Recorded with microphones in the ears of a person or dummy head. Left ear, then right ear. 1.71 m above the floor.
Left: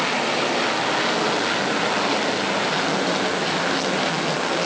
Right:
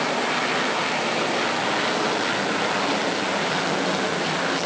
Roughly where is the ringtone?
I don't hear a ringtone.